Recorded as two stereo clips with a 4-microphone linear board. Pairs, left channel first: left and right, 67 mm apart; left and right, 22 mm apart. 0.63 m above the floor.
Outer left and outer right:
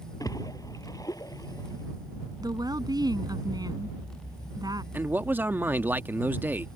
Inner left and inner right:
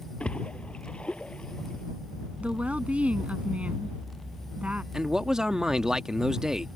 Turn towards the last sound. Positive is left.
turn(degrees=-30)  # may be behind; listen again after turning